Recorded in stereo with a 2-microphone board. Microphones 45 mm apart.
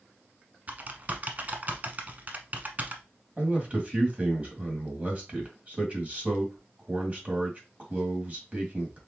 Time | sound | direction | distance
0.7 | typing on a keyboard | 35° right (ahead or behind) | 0.8 m
3.4 | a man speaking | 30° right (ahead or behind) | 2 m